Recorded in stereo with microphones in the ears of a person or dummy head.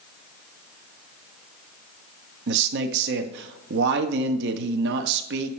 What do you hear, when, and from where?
2.5 s a man speaking: 60° right (ahead or behind), 0.8 m